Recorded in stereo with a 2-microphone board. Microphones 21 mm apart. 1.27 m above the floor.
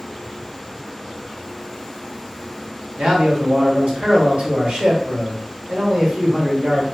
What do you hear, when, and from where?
3.0 s a man speaking: 70° right (ahead or behind), 1.3 m